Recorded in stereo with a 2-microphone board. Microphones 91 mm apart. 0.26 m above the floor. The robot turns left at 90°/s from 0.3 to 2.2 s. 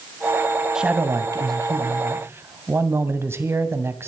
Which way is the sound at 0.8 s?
10° right.